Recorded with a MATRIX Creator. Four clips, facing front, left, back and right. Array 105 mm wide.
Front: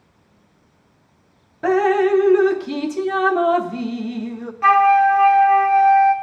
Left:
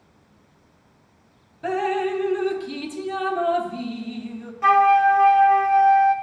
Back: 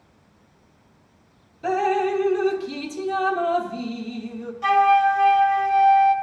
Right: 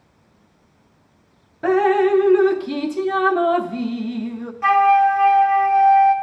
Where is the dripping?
40° right, 0.6 m.